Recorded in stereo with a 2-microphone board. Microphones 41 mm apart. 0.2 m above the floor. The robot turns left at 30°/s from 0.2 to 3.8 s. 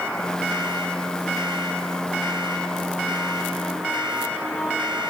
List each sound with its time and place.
Only background noise.